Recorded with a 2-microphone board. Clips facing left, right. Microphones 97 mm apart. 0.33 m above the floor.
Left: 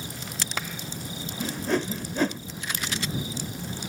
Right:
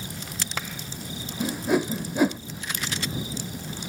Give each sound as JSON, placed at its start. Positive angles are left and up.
{"t": 1.4, "sound": "a whoosh", "side_deg": -10}